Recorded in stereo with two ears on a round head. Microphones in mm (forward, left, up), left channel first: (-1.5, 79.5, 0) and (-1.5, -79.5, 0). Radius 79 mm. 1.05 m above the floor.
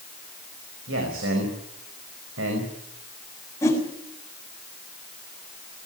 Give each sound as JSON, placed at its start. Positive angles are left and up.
{"t": 0.9, "sound": "a man speaking", "side_deg": -85, "distance_m": 5.0}
{"t": 3.6, "sound": "a whoosh", "side_deg": 15, "distance_m": 7.0}